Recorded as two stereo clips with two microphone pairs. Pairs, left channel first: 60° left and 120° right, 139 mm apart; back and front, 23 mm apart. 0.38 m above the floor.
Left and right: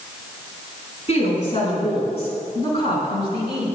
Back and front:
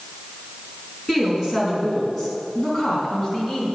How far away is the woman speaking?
About 5 m.